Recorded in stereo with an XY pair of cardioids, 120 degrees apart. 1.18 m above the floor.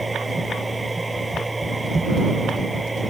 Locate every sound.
0.0 s a machine running: 10° right